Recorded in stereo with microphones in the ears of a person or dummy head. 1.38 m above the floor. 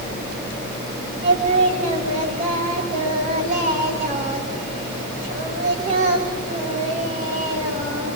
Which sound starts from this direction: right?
Singing, at 1.2 s.